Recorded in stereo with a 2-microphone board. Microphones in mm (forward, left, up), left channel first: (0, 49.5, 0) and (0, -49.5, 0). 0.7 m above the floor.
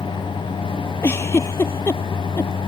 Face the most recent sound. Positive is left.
turn(degrees=25)  # may be behind; listen again after turning